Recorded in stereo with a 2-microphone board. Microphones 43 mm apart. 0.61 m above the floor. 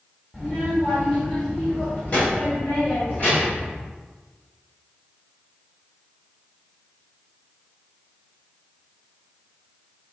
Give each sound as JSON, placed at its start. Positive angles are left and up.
{"t": 0.3, "sound": "a child speaking", "side_deg": 5, "distance_m": 1.2}